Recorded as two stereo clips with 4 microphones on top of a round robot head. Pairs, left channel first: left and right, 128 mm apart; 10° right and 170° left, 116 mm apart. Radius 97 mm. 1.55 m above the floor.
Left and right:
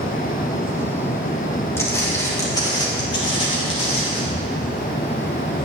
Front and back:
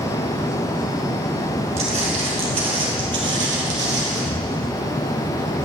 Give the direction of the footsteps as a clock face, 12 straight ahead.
7 o'clock.